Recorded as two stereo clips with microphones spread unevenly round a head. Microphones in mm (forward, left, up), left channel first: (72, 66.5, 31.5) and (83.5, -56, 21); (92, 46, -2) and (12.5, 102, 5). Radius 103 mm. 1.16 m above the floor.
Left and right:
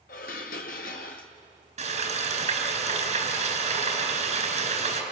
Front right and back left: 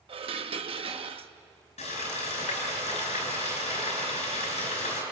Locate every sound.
0.1 s dishes clattering: 125° left, 1.0 m
1.8 s frying: 60° right, 4.5 m